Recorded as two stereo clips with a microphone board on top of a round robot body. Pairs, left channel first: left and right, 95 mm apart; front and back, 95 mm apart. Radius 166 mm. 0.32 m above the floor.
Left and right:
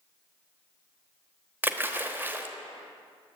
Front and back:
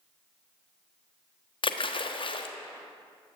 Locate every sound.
1.6 s a splash: 20° right, 1.1 m